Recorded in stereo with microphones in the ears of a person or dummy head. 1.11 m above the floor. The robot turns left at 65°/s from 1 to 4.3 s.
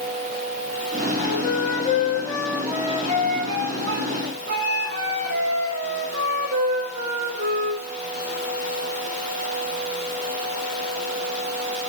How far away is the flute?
About 1.7 m.